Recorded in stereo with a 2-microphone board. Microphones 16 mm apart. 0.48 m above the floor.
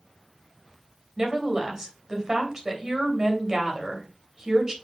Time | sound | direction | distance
1.2 | a woman speaking | 25° right (ahead or behind) | 3 m